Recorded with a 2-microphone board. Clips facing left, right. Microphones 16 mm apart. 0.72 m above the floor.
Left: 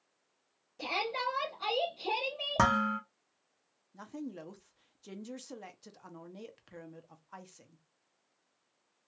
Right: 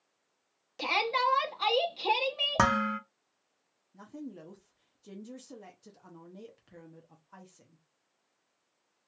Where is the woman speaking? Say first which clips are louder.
Left 1 dB; 20° left (ahead or behind), 0.5 m.